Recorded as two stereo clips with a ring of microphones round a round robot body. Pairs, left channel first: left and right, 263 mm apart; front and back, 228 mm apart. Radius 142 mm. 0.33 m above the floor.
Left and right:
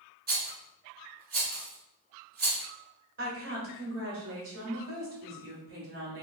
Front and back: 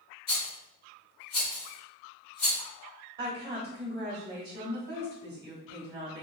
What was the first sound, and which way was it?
A rattle, 40° right.